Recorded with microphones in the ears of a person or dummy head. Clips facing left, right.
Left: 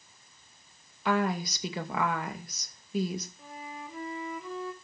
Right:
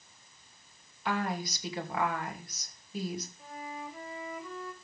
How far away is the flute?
About 2 m.